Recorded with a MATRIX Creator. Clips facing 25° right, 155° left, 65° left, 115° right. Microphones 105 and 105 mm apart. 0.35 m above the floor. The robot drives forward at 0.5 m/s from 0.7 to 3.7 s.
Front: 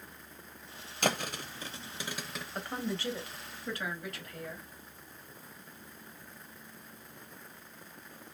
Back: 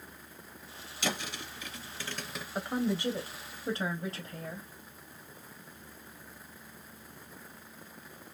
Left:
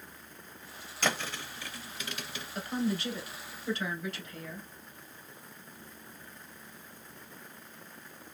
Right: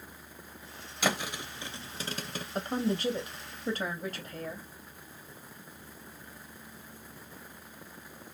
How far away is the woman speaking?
About 1.3 m.